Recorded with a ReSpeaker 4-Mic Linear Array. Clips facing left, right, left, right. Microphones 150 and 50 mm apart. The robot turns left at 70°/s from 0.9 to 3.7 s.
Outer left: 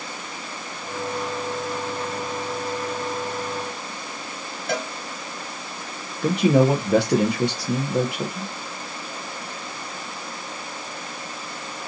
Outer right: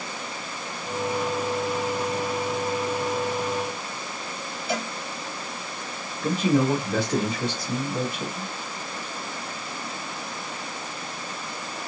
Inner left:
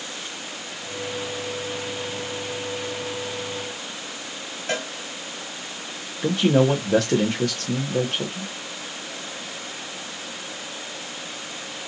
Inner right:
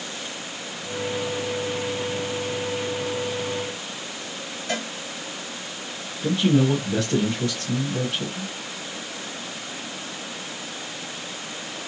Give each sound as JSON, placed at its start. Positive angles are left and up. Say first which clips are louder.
{"t": 4.7, "sound": "a cowbell", "louder": "outer left 2 dB, inner left 1 dB", "side_deg": 55, "distance_m": 1.8}
{"t": 6.2, "sound": "a man speaking", "louder": "outer left 4 dB, inner left 1 dB", "side_deg": 70, "distance_m": 0.7}